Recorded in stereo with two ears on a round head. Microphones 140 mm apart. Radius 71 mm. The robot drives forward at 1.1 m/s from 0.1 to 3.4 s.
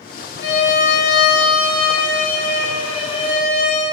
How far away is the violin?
About 2.5 m.